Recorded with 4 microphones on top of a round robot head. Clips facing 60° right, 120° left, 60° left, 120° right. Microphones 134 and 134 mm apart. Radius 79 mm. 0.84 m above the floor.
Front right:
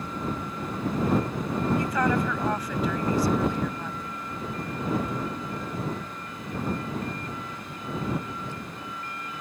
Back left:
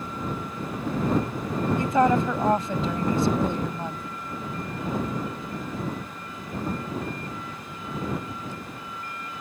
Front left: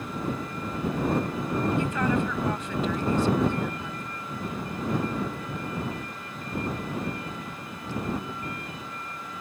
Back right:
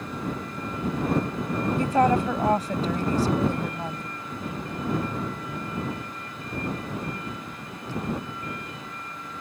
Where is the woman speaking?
175° right.